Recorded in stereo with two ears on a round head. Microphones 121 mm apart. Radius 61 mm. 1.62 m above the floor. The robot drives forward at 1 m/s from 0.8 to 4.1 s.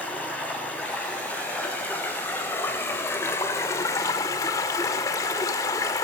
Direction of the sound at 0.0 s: 10° left (ahead or behind).